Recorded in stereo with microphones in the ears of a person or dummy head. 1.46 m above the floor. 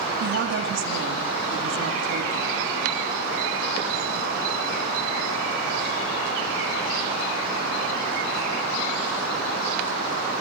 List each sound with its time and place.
0.2 s a woman speaking: 65° right (ahead or behind), 3 m